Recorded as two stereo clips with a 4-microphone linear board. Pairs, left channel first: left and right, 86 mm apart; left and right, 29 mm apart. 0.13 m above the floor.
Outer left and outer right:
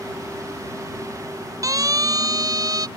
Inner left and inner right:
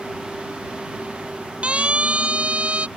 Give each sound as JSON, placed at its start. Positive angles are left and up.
{"t": 1.6, "sound": "a siren", "side_deg": -40}